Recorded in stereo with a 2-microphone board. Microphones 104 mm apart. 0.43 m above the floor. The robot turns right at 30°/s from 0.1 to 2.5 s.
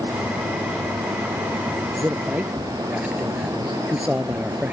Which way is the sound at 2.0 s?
25° right (ahead or behind).